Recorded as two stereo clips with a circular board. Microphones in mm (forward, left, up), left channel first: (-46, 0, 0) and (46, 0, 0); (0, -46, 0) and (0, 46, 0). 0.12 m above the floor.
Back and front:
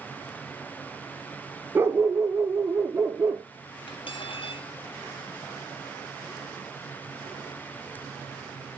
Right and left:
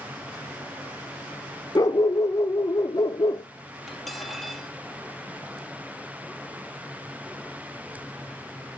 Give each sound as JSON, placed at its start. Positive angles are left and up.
{"t": 1.8, "sound": "a dog barking", "azimuth_deg": -55, "distance_m": 0.8}
{"t": 3.9, "sound": "cutlery clinking", "azimuth_deg": 180, "distance_m": 2.0}